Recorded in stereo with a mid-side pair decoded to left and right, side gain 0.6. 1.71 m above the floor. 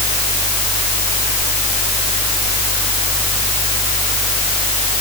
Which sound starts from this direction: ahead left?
A fan, at 0.0 s.